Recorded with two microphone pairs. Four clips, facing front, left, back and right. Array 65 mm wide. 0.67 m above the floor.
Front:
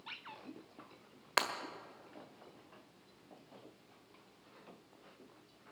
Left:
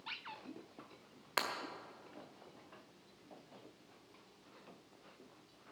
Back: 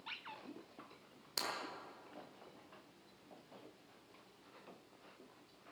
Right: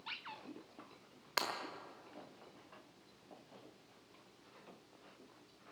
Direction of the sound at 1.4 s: 5° left.